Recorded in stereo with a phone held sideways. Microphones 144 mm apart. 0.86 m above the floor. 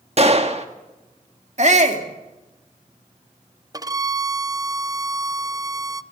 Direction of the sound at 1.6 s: 55° right (ahead or behind).